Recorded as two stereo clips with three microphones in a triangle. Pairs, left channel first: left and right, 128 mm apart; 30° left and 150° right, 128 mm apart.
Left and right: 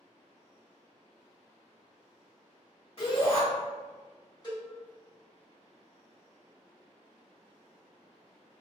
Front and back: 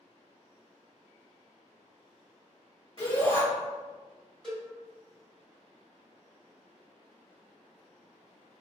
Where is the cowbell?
105° left, 1.5 m.